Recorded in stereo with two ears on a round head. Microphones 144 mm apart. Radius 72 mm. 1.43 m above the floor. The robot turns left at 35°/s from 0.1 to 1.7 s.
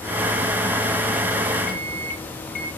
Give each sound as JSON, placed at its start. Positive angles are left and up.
{"t": 1.7, "sound": "a microwave", "side_deg": 60, "distance_m": 1.1}